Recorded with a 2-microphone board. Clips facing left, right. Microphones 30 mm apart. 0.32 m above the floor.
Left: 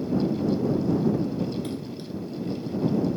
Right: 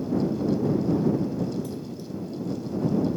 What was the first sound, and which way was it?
A splash, 55° left (ahead or behind).